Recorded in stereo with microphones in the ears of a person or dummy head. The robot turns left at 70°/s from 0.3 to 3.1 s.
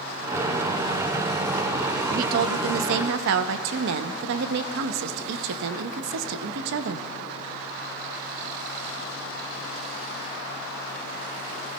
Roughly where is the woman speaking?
Ahead right.